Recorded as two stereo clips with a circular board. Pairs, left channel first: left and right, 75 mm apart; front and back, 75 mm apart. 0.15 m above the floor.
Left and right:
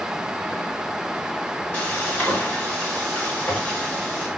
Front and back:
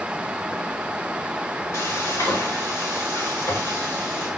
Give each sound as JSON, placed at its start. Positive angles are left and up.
{"t": 1.7, "sound": "frying", "azimuth_deg": 25, "distance_m": 2.0}